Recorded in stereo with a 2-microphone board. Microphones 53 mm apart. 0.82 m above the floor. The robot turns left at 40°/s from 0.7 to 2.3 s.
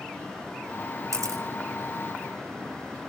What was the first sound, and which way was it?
A camera shutter, 85° right.